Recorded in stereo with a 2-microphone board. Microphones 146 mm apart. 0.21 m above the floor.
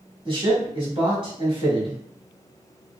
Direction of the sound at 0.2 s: 40° right (ahead or behind).